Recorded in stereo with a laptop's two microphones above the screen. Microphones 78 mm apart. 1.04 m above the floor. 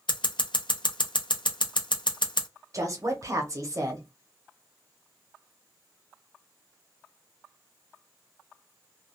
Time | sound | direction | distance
0.1 | scissors | 85° left | 0.6 m
2.7 | a woman speaking | 40° right (ahead or behind) | 0.8 m